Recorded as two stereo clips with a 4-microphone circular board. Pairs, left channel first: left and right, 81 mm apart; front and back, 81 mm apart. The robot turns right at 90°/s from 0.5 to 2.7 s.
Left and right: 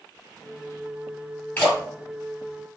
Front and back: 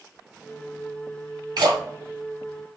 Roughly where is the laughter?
No laughter in this recording.